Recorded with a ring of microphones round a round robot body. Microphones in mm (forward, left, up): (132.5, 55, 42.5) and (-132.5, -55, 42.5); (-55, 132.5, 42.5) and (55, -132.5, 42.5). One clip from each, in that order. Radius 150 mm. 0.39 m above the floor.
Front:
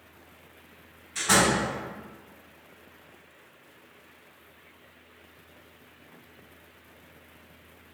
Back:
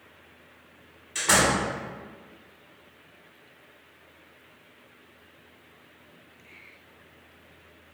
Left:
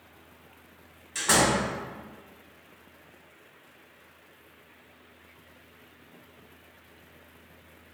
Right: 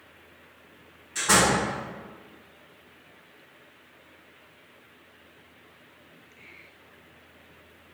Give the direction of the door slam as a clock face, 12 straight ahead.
7 o'clock.